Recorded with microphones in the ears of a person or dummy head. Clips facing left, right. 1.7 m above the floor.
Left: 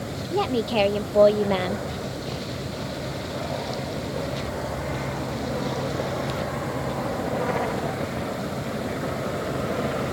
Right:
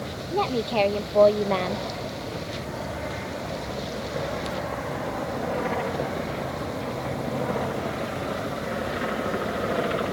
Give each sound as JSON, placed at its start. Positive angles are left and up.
{"t": 0.3, "sound": "a woman speaking", "side_deg": 10}